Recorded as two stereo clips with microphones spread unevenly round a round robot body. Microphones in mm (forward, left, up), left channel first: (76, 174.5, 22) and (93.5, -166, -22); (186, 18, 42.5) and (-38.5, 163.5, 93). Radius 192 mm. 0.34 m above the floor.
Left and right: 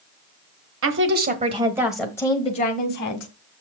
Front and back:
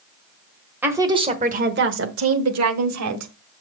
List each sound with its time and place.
0.8 s a woman speaking: 120° right, 1.3 m; by 3.3 s 150° left, 1.8 m